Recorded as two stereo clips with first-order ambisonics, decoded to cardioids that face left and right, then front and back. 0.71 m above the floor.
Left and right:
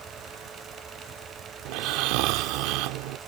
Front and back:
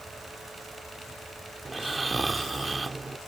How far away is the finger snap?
I don't hear a finger snap.